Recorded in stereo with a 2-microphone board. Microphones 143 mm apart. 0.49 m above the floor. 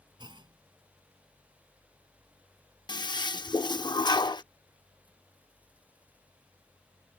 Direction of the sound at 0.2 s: 35° right (ahead or behind).